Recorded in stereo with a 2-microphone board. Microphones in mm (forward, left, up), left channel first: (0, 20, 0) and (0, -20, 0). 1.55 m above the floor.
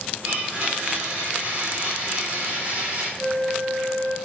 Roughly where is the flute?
Right.